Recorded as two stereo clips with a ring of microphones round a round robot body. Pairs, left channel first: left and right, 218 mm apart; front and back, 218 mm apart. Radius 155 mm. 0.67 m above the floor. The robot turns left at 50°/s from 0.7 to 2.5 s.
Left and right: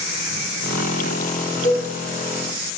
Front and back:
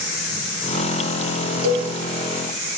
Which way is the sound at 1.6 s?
170° left.